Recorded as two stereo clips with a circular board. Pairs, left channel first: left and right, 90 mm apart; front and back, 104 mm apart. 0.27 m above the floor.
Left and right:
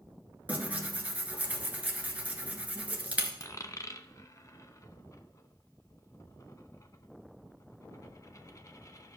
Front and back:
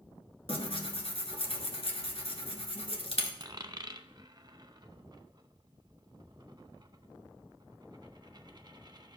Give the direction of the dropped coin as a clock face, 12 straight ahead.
7 o'clock.